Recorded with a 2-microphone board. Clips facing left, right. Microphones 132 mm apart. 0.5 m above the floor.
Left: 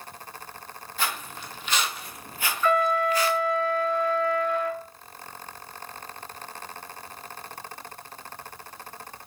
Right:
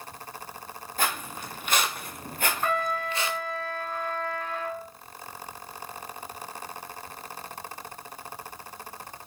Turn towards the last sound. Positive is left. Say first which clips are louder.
# left 8 dB
turn(degrees=-70)  # may be behind; listen again after turning